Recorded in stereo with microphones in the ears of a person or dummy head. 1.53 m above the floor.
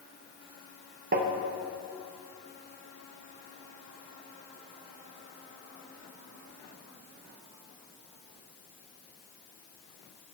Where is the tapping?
45° right (ahead or behind), 1.1 m.